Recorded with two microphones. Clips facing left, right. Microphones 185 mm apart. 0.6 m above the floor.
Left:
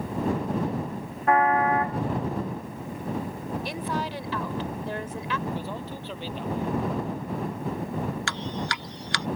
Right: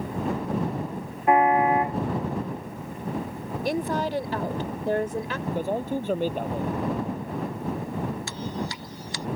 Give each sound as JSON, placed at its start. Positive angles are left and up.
{"t": 1.3, "sound": "a car horn", "side_deg": -20}
{"t": 3.6, "sound": "a woman speaking", "side_deg": -45}
{"t": 5.5, "sound": "a man speaking", "side_deg": -50}
{"t": 8.3, "sound": "dripping", "side_deg": 80}